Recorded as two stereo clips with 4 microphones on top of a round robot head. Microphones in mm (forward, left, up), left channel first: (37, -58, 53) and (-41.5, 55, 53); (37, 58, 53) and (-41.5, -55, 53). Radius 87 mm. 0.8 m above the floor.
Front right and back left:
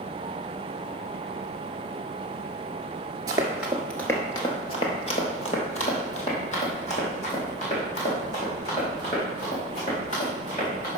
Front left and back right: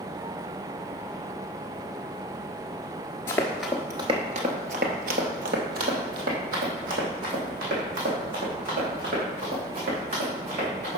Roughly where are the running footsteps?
Left.